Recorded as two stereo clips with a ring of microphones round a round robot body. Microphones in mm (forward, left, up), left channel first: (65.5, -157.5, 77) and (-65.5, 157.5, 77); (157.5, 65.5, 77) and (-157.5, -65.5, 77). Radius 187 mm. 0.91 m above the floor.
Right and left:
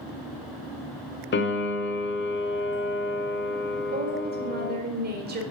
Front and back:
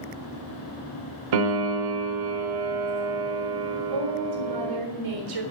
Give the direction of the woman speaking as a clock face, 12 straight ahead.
6 o'clock.